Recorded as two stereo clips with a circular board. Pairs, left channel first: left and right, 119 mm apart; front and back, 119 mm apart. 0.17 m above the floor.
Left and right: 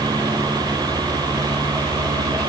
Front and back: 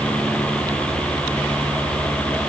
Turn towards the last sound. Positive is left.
No sound to turn to.